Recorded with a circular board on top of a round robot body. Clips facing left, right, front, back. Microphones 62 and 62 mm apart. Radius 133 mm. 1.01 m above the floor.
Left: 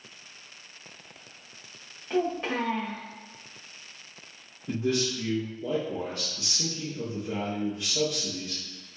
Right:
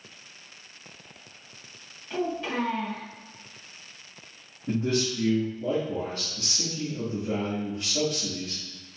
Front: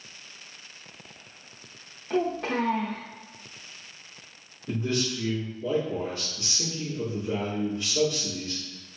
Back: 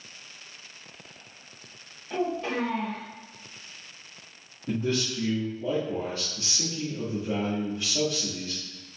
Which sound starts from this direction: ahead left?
A child speaking, at 2.1 s.